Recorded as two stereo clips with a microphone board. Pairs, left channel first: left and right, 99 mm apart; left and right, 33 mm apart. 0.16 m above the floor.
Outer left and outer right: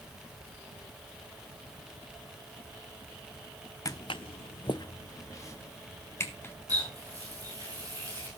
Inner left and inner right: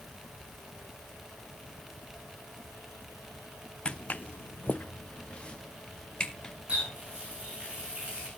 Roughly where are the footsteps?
Left.